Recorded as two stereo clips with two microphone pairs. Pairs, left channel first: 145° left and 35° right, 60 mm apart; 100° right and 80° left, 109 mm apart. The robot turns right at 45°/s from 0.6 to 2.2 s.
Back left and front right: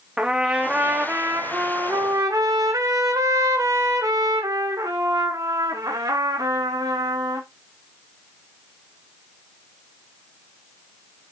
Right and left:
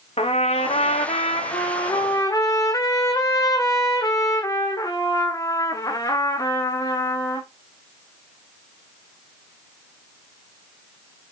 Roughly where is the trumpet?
Right.